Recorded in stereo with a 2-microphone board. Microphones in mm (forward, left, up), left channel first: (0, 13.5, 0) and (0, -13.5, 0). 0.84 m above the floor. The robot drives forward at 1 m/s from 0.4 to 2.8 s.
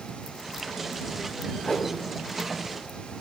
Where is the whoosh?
25° left (ahead or behind), 3.5 m; by 1.9 s 30° left (ahead or behind), 3 m.